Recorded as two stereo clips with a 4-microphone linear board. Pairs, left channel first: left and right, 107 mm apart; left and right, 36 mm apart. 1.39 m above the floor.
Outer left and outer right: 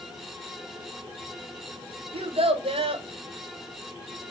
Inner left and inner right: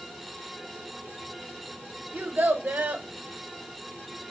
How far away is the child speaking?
About 0.9 m.